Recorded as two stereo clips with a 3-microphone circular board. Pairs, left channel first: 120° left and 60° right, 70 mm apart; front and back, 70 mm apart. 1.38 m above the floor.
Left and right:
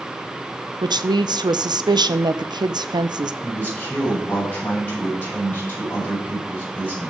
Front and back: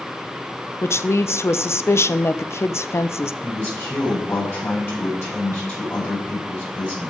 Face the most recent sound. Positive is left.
turn(degrees=55)